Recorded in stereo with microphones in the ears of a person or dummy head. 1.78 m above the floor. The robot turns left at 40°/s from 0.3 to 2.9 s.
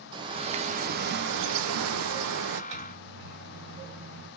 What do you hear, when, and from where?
0.1 s a bird: 35° right, 0.5 m; by 2.6 s 125° right, 0.5 m
2.7 s a microwave: 80° right, 2.5 m